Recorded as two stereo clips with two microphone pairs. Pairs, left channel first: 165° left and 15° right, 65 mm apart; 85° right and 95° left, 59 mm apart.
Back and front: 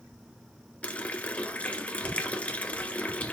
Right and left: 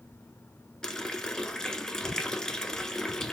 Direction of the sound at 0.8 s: 150° right.